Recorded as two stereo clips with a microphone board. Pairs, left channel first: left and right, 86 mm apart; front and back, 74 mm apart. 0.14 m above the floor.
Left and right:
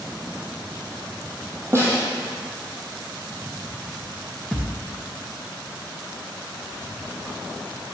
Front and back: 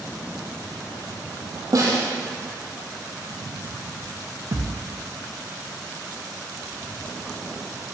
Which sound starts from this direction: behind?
A thud, at 4.5 s.